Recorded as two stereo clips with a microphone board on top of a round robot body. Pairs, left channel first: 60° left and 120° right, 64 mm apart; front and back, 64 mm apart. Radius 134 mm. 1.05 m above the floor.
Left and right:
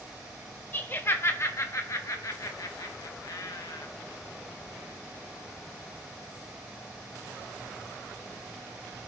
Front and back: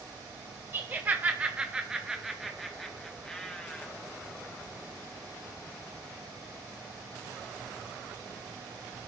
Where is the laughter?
120° left, 1.6 m; by 3.9 s 80° left, 2.5 m.